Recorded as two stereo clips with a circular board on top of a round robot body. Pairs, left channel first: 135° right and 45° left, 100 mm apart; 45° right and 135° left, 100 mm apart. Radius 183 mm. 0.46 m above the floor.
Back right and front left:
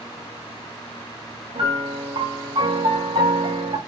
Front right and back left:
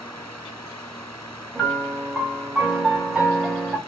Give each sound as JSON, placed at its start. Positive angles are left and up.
{"t": 1.6, "sound": "a piano", "azimuth_deg": 50, "distance_m": 1.3}